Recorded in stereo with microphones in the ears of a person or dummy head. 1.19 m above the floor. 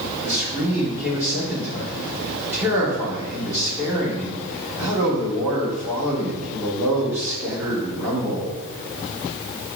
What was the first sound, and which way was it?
A man speaking, 15° right (ahead or behind).